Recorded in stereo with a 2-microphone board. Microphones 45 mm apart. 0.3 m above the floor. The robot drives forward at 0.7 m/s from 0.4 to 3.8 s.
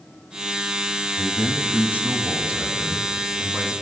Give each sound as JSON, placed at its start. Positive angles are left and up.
{"t": 1.2, "sound": "a man speaking", "side_deg": -35, "distance_m": 1.7}